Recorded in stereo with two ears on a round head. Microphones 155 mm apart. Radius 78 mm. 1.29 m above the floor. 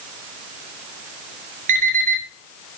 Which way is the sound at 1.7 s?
45° right (ahead or behind).